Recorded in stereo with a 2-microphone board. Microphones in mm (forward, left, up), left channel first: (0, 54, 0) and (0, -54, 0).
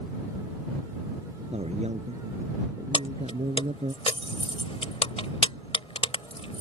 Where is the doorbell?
I don't hear a doorbell.